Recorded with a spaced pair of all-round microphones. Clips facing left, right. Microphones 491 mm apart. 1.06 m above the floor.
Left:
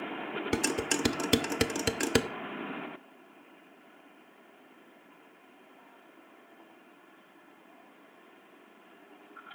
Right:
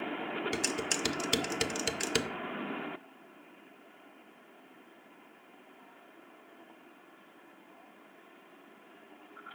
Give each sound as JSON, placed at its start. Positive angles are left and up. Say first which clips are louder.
{"t": 0.5, "sound": "dishes clattering", "louder": "left 5 dB", "side_deg": 70, "distance_m": 0.7}